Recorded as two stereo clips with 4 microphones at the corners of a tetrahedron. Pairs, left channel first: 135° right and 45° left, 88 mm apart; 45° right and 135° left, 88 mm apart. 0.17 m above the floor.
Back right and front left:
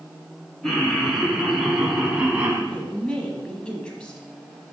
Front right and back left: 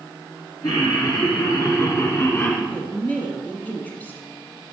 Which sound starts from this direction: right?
A woman speaking, at 2.7 s.